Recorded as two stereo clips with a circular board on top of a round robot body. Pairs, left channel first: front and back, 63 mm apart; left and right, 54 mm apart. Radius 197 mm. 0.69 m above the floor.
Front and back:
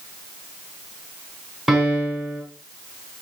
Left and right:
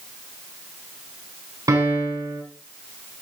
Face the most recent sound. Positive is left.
turn(degrees=-95)